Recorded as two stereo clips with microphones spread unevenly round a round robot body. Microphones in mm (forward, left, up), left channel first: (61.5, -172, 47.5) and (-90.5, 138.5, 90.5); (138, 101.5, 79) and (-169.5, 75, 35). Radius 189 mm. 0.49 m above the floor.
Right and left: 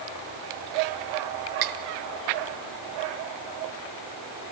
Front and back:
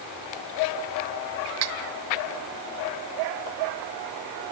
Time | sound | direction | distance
1.6 | cutlery clinking | 150° left | 1.1 m